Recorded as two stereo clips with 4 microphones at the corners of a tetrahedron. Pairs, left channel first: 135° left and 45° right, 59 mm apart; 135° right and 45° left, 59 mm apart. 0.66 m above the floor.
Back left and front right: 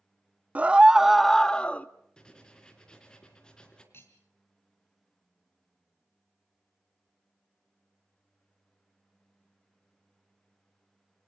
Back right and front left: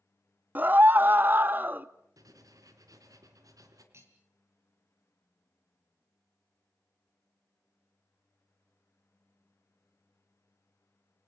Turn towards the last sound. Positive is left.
turn(degrees=85)